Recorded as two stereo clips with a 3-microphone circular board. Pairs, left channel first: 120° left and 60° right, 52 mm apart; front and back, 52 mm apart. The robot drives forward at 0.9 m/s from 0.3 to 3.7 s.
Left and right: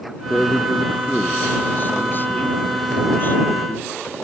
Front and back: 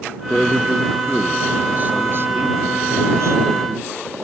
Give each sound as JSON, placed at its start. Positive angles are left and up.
{"t": 0.3, "sound": "a man speaking", "azimuth_deg": 65}